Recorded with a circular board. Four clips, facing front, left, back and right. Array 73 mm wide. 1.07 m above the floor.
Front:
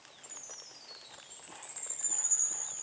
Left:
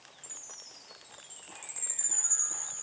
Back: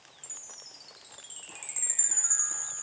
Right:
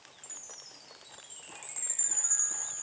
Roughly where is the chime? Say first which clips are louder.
Even, front 1 dB; behind.